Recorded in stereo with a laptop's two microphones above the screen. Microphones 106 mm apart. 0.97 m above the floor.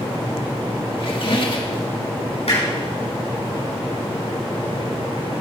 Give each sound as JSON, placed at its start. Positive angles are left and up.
{"t": 1.0, "sound": "a squeak", "side_deg": 55, "distance_m": 1.5}
{"t": 2.5, "sound": "hammering", "side_deg": 75, "distance_m": 5.5}